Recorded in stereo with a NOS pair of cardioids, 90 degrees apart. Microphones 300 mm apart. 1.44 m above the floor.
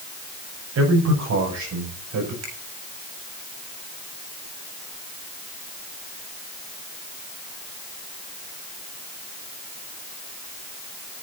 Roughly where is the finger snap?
Ahead right.